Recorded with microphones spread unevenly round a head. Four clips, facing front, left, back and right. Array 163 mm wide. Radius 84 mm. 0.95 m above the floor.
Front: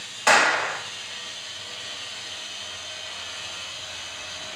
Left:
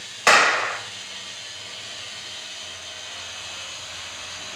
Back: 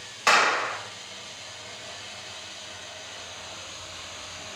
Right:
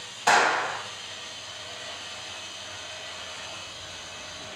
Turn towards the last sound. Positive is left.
turn(degrees=80)